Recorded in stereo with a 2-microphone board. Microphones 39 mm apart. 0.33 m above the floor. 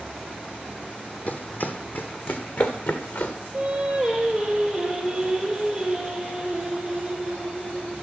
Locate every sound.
1.3 s running footsteps: 45° left (ahead or behind), 0.7 m; by 3.3 s 70° left (ahead or behind), 1.7 m
3.5 s singing: centre (ahead or behind), 4 m